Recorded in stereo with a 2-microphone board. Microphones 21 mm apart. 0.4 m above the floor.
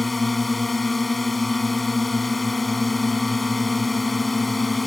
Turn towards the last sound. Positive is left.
turn(degrees=0)  # may be behind; listen again after turning